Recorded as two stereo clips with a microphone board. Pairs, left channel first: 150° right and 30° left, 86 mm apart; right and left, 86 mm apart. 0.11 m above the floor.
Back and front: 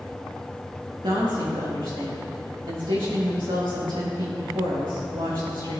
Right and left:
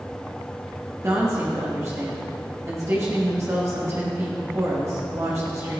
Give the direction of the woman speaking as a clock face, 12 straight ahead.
11 o'clock.